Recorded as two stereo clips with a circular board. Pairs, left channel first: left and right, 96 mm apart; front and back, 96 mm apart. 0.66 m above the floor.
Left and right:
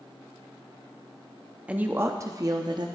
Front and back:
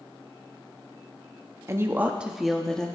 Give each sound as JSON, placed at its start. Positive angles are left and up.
{"t": 1.7, "sound": "a woman speaking", "azimuth_deg": -155, "distance_m": 0.7}